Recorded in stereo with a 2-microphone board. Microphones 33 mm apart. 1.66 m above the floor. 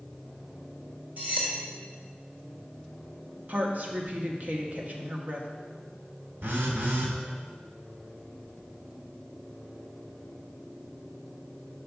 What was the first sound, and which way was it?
Cutlery clinking, 40° right (ahead or behind).